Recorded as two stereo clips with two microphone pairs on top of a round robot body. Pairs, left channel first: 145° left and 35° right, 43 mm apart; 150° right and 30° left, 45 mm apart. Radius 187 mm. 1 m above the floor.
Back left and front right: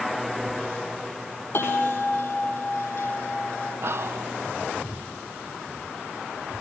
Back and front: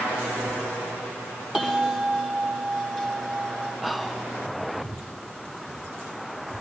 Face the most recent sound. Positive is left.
turn(degrees=-55)